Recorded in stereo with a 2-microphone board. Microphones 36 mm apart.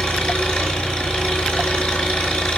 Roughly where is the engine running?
Centre.